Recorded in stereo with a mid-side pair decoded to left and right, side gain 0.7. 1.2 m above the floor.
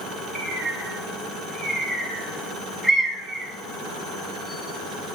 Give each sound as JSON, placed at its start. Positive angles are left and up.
{"t": 0.3, "sound": "a bird", "azimuth_deg": -5, "distance_m": 1.5}